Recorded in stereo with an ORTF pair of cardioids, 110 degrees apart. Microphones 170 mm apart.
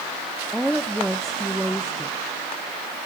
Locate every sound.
0.5 s a woman speaking: straight ahead, 0.9 m